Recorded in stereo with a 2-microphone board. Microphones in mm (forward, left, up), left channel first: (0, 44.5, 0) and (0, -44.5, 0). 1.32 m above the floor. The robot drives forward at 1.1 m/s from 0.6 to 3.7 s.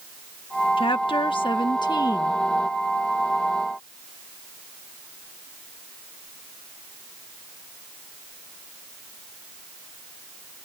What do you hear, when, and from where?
0.8 s a woman speaking: 75° left (ahead or behind); by 2.4 s 45° left (ahead or behind)